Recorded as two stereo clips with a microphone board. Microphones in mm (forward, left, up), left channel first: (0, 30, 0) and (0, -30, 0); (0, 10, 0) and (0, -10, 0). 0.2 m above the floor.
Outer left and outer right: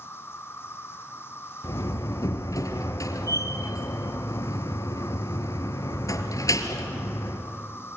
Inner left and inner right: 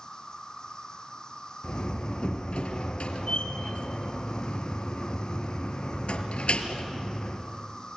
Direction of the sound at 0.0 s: 40° left (ahead or behind).